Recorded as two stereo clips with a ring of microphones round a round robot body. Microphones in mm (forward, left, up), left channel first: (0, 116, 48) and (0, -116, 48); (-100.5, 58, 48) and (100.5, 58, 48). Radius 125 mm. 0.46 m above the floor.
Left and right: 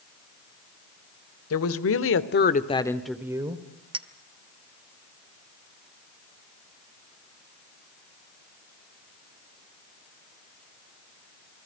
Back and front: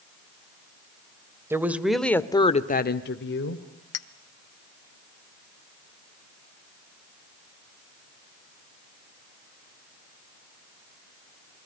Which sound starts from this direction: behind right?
A clink, at 3.9 s.